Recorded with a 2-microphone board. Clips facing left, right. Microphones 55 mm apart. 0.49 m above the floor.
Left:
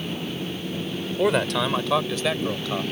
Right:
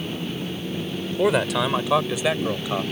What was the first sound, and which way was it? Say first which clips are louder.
A man speaking: right 1 dB; centre (ahead or behind).